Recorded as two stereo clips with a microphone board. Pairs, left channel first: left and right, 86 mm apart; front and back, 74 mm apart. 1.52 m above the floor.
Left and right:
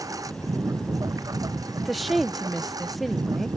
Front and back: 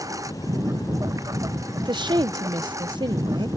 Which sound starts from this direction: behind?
A woman speaking, at 1.8 s.